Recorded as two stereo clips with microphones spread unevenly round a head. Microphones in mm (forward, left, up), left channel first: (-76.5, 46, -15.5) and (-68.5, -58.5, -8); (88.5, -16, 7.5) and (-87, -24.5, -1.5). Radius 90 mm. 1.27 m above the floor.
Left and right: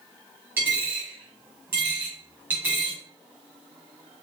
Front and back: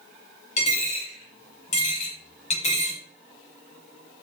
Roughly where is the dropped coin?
Ahead.